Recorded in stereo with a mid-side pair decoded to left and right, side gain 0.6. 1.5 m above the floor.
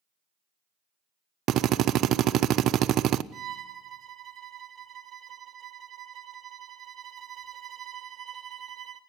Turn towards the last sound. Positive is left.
turn(degrees=-40)